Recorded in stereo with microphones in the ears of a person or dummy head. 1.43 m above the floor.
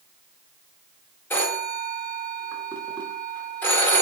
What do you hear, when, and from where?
1.3 s a phone ringing: 10° left (ahead or behind), 0.8 m